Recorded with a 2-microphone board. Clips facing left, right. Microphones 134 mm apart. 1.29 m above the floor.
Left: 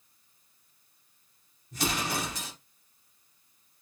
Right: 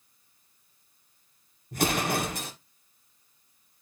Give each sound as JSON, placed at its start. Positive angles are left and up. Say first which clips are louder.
{"t": 1.7, "sound": "an explosion", "louder": "right 5 dB", "side_deg": -55, "distance_m": 0.7}